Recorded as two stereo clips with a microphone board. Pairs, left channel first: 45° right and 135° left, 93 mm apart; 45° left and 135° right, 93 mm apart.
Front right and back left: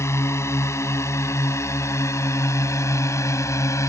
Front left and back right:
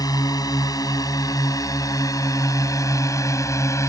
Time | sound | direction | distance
0.0 | a drone | 10° left | ?